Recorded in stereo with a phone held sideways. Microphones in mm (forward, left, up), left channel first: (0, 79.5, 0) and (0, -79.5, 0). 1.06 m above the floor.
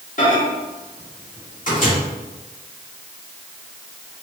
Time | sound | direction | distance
0.2 | a microwave | 55° left (ahead or behind) | 1.7 m